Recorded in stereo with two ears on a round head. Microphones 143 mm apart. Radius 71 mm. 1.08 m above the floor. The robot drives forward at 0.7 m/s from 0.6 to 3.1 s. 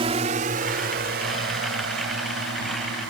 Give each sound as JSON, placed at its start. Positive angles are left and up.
{"t": 0.0, "sound": "a drone", "side_deg": -35}